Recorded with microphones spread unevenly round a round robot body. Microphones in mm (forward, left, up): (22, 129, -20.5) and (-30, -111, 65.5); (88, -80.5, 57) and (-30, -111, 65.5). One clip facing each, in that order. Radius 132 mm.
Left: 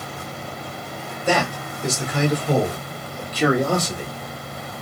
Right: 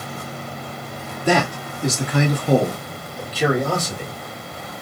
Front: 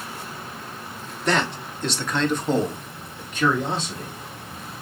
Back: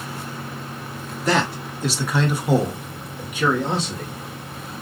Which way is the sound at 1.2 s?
80° right.